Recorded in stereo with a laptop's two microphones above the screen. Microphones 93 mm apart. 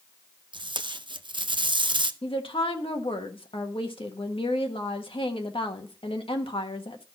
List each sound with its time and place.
0.5 s tape being pulled: 60° right (ahead or behind), 0.6 m
2.2 s a woman speaking: 80° left, 1.4 m